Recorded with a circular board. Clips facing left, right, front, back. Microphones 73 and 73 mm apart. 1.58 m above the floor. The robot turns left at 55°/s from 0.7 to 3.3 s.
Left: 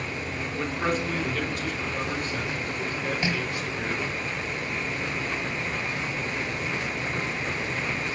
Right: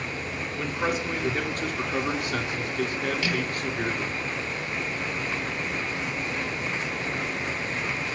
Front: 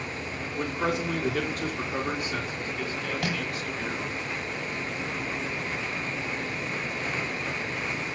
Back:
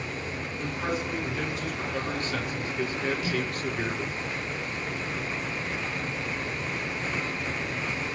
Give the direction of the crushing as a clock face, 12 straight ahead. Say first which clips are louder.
Even, back 1 dB; 11 o'clock.